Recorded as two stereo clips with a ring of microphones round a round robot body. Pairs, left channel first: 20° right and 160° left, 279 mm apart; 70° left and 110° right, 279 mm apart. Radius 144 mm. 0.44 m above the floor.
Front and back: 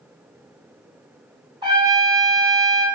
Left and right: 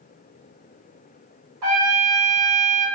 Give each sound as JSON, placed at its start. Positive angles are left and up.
{"t": 1.6, "sound": "a trumpet", "azimuth_deg": -130, "distance_m": 1.9}